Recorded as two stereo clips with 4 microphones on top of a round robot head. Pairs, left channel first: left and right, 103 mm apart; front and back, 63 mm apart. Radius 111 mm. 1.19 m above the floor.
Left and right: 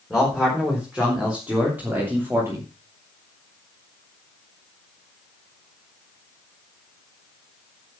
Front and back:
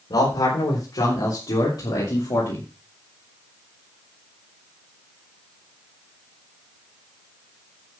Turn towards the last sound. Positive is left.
turn(degrees=-25)